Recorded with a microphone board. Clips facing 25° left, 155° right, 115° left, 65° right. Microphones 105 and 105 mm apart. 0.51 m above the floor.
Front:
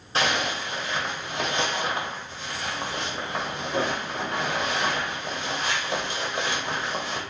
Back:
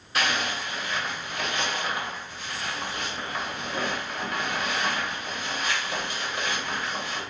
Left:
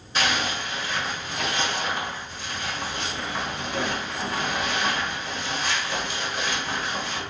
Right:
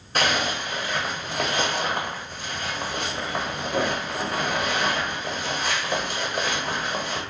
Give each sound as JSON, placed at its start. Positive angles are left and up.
{"t": 0.1, "sound": "a zipper", "azimuth_deg": -35, "distance_m": 1.4}